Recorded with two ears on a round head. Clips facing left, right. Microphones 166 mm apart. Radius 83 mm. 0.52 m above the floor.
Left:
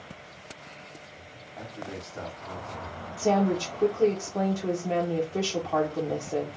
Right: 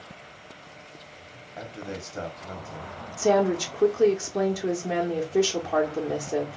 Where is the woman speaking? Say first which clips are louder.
Right 3 dB; 15° right (ahead or behind), 0.8 m.